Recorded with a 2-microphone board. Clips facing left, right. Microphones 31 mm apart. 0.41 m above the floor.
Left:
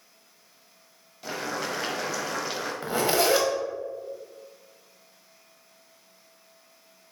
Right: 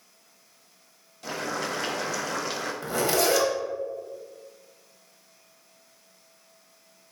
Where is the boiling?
10° left (ahead or behind), 0.9 m.